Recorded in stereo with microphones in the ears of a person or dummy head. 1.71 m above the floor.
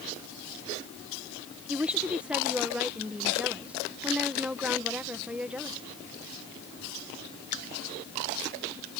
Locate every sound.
1.7 s a woman speaking: centre (ahead or behind)